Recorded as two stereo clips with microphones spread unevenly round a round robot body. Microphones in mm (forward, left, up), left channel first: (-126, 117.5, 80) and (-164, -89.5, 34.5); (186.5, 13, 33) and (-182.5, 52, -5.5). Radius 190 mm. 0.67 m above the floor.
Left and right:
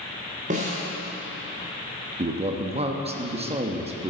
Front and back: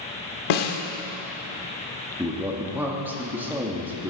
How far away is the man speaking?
About 1.1 m.